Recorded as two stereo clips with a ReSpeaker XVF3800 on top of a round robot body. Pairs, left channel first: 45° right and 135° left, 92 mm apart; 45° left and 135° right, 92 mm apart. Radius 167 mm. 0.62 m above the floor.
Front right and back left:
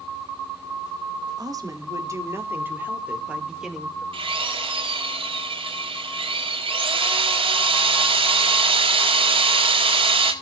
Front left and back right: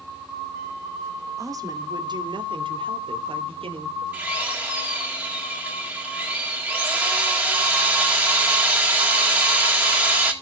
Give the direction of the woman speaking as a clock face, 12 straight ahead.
6 o'clock.